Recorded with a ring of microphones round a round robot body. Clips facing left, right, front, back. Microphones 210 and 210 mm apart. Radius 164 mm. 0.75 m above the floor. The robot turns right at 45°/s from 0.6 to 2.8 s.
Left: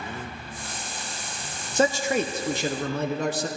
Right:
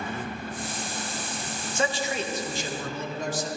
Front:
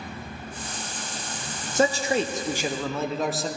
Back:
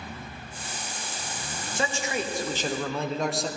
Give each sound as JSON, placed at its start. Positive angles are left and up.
{"t": 1.8, "sound": "a man speaking", "azimuth_deg": 40, "distance_m": 0.8}